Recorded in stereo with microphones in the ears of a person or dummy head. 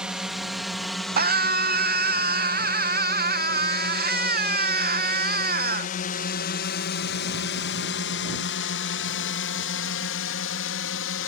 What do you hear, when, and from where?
0.0 s a drone: 5° right (ahead or behind); by 11.3 s 65° left (ahead or behind)
1.2 s a scream: 45° right (ahead or behind)